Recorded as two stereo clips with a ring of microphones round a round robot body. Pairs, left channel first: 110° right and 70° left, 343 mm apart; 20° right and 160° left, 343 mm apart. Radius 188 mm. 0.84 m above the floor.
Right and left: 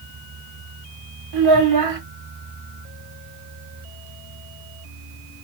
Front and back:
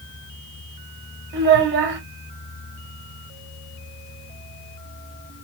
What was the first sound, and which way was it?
A child speaking, 100° left.